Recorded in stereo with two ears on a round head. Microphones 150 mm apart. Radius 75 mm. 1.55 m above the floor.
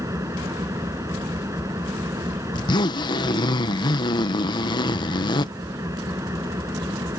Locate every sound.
0.0 s an engine running: 20° right (ahead or behind)
2.5 s a zipper: 25° left (ahead or behind)